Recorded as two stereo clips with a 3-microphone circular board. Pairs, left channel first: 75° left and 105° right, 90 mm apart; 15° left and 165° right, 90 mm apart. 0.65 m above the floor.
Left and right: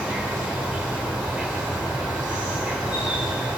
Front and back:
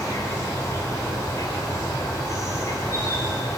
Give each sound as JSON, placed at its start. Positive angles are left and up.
{"t": 0.0, "sound": "an insect", "azimuth_deg": -30, "distance_m": 4.0}